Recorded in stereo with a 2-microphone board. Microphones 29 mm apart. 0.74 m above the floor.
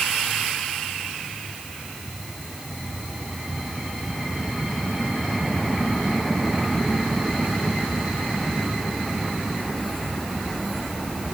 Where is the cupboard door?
I don't hear a cupboard door.